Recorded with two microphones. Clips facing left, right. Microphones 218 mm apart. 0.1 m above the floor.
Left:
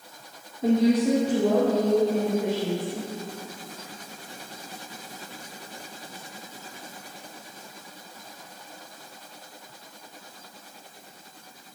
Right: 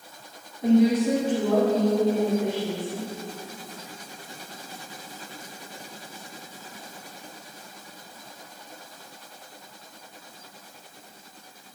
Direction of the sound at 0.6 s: 25° left (ahead or behind).